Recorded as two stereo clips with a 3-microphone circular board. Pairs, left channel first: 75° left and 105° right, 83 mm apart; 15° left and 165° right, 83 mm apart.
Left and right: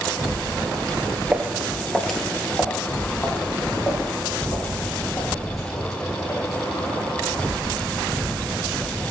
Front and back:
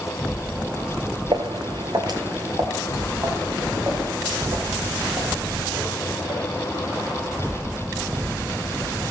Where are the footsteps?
Straight behind, 1.3 m; by 7.0 s 130° left, 6 m.